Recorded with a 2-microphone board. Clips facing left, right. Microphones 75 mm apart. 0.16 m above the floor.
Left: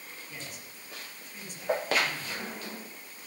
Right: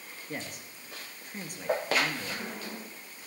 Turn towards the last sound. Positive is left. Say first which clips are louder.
# right 8 dB
turn(degrees=-50)  # may be behind; listen again after turning